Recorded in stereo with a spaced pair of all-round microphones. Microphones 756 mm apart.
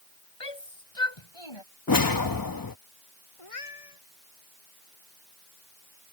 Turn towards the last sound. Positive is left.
turn(degrees=50)  # may be behind; listen again after turning